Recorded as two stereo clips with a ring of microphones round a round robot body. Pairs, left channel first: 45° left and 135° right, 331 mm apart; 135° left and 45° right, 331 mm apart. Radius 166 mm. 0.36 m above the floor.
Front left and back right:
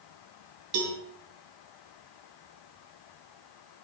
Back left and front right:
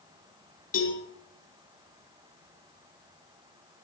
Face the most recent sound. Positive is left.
turn(degrees=-160)